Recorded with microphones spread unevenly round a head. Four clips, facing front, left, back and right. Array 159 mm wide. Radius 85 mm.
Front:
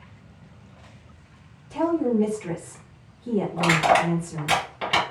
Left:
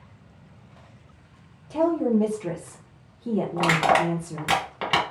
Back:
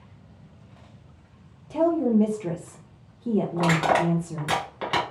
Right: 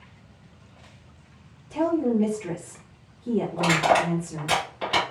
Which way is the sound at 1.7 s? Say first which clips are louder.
Left 1 dB, back 1 dB; 145° left.